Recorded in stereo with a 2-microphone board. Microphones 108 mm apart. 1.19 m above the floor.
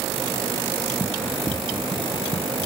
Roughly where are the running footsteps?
Centre.